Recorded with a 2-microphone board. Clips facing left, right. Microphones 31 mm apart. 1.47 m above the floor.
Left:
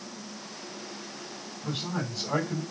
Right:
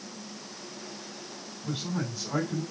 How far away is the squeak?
I don't hear a squeak.